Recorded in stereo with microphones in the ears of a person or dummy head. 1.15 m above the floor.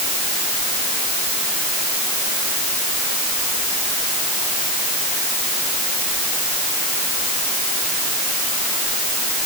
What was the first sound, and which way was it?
Only background noise.